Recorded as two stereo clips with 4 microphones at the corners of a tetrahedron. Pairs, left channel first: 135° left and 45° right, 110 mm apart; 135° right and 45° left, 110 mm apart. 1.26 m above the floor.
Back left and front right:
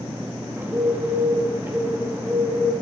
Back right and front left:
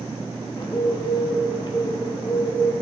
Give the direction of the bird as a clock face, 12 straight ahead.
4 o'clock.